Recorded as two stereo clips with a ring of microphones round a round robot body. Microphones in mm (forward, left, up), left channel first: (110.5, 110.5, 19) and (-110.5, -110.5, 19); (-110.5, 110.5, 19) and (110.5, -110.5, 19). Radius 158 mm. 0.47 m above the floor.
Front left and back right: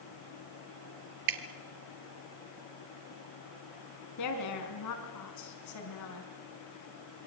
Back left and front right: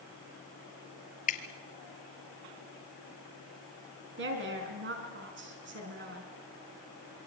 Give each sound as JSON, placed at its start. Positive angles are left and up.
{"t": 1.3, "sound": "dripping", "azimuth_deg": -160, "distance_m": 1.7}
{"t": 4.2, "sound": "a woman speaking", "azimuth_deg": 10, "distance_m": 5.0}